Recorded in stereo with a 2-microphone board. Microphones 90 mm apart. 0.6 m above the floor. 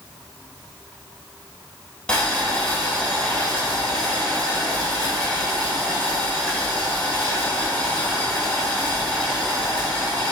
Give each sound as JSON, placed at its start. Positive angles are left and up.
{"t": 2.1, "sound": "boiling", "side_deg": 10, "distance_m": 2.0}